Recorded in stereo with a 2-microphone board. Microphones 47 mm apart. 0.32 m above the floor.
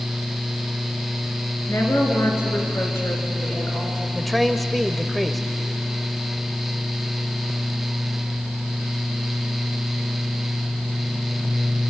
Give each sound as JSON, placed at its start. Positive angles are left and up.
{"t": 1.7, "sound": "a woman speaking", "side_deg": 75, "distance_m": 5.0}
{"t": 4.2, "sound": "a man speaking", "side_deg": 0, "distance_m": 1.2}